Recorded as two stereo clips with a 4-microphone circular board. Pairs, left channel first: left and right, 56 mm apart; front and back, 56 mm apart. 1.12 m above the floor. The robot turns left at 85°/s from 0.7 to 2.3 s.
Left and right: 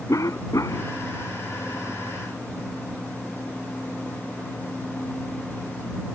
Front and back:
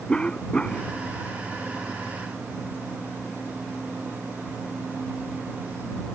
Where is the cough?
75° left; by 0.9 s 55° left.